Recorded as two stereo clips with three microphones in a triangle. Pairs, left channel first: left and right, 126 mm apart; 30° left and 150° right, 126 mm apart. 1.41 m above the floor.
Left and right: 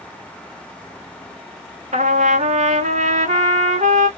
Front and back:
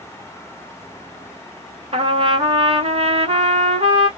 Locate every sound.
1.9 s a trumpet: 110° right, 1.4 m